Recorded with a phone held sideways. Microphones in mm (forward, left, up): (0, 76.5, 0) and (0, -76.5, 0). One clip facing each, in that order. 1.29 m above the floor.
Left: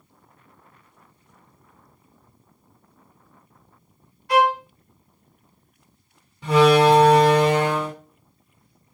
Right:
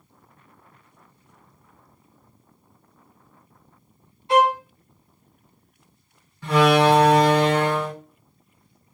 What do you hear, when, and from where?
4.3 s a violin: 25° right (ahead or behind), 0.7 m
6.4 s a door slam: 20° left (ahead or behind), 2 m